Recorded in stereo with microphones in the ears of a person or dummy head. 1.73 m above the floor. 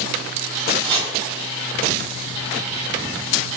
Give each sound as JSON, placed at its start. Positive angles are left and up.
{"t": 0.8, "sound": "chopping", "side_deg": 10, "distance_m": 5.0}